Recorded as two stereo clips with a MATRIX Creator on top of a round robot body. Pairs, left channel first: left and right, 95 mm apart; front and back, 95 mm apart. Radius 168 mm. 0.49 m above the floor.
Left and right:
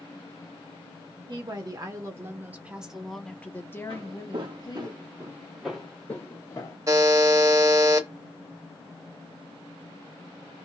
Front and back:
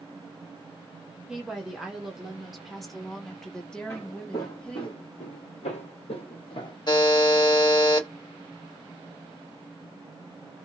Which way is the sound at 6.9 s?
40° right.